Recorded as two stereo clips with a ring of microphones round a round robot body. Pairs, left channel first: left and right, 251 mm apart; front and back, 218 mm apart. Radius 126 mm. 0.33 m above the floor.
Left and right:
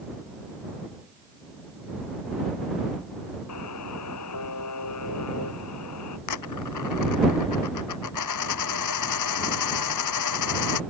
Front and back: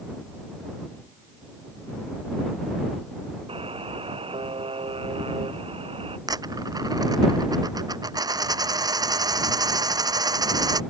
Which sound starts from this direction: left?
A dropped coin, at 6.3 s.